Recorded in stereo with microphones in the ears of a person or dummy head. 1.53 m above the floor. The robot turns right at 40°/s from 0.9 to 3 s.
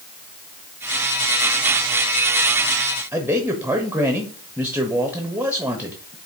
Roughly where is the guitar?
No guitar in this recording.